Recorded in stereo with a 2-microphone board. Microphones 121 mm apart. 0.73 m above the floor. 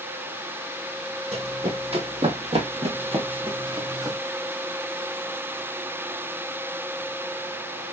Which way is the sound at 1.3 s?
60° right (ahead or behind).